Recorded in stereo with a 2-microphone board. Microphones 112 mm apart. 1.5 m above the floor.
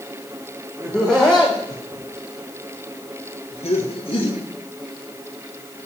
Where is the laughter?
5° right (ahead or behind), 1.5 m; by 4.4 s 45° left (ahead or behind), 2 m.